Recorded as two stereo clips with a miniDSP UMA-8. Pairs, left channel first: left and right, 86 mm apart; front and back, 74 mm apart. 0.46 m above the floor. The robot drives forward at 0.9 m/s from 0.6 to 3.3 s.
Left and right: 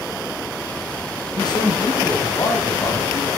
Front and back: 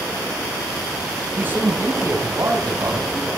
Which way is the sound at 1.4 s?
115° left.